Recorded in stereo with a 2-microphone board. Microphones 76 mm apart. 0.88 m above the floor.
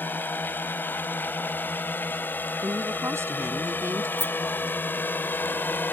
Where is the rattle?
35° left (ahead or behind).